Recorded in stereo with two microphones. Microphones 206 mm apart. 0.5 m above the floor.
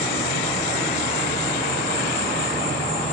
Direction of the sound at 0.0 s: 5° left (ahead or behind).